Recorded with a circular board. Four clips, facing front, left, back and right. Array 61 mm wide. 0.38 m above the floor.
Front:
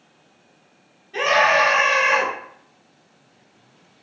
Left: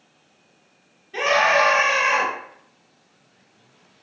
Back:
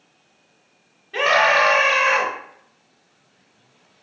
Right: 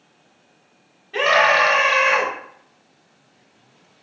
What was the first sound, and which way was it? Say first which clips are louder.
A scream: right 2 dB, even; 135° right.